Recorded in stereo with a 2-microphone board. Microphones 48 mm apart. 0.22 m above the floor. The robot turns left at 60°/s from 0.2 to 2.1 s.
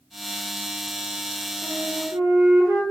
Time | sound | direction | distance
1.6 | a flute | 65° right (ahead or behind) | 1.4 m